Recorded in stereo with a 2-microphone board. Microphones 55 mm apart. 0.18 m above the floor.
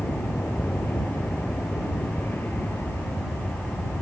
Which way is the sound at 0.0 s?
40° left (ahead or behind).